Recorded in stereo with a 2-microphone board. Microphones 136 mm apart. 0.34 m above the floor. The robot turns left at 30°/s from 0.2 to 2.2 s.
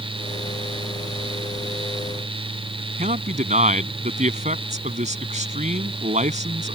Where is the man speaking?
70° right (ahead or behind).